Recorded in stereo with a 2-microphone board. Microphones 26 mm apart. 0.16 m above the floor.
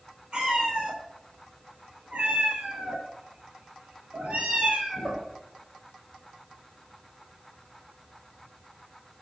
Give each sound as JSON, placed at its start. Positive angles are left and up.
{"t": 0.3, "sound": "a cat meowing", "side_deg": -40, "distance_m": 2.0}